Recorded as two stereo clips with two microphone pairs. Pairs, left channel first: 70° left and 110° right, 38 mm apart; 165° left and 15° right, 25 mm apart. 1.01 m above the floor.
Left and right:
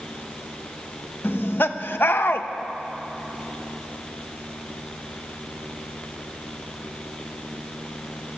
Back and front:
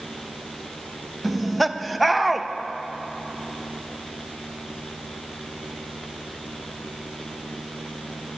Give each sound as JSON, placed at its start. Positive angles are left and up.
{"t": 1.2, "sound": "laughter", "azimuth_deg": 70, "distance_m": 0.8}